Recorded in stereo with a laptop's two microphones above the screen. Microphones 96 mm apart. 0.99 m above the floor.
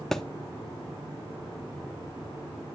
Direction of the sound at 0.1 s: 5° left (ahead or behind).